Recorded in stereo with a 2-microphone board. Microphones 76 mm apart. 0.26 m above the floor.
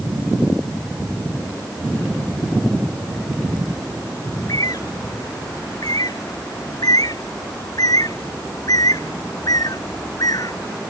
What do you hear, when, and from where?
4.3 s a bird: 55° left (ahead or behind)